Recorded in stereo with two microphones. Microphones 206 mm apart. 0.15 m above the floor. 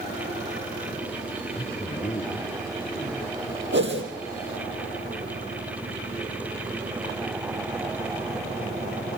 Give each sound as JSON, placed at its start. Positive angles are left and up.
{"t": 1.5, "sound": "a man speaking", "side_deg": 45, "distance_m": 2.5}
{"t": 3.7, "sound": "a whoosh", "side_deg": -65, "distance_m": 4.0}